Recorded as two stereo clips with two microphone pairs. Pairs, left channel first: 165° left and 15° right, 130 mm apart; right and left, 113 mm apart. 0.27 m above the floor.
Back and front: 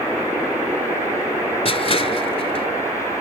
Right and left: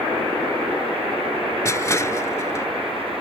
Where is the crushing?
155° right.